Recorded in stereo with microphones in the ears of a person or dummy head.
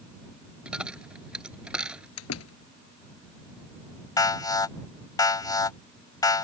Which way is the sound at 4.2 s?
25° left (ahead or behind).